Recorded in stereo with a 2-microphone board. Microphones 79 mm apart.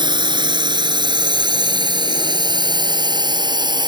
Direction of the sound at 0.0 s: 75° right (ahead or behind).